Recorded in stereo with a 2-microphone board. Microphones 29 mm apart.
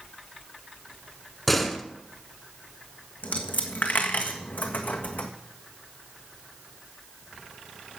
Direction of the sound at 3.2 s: 65° left (ahead or behind).